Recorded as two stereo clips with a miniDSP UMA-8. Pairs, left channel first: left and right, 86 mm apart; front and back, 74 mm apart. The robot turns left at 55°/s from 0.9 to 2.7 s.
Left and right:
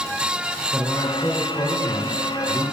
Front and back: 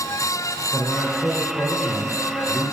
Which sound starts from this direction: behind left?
A man speaking, at 0.7 s.